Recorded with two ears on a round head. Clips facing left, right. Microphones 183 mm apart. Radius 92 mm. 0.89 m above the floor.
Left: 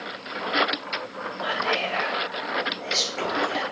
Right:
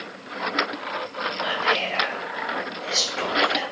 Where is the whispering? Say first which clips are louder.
Even; centre (ahead or behind), 0.7 m.